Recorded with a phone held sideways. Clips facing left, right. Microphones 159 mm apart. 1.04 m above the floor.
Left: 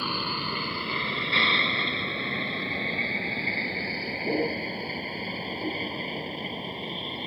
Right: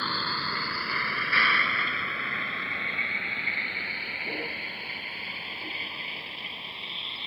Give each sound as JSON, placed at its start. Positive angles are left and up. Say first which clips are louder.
{"t": 0.0, "sound": "a vehicle", "louder": "left 2 dB", "side_deg": 15}